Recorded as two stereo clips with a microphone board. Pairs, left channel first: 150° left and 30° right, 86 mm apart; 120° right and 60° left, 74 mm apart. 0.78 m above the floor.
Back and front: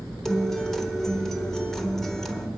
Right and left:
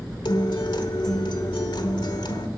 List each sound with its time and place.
0.2 s a guitar: 125° right, 1.2 m